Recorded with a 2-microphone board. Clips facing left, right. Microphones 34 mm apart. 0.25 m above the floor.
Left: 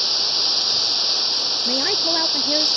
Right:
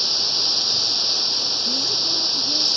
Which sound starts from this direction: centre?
Running water, at 0.0 s.